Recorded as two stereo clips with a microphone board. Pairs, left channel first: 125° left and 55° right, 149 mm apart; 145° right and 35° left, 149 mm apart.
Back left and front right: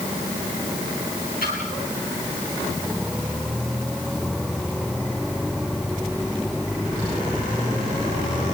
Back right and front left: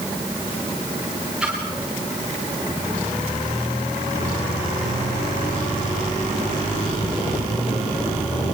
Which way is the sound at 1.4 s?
120° left.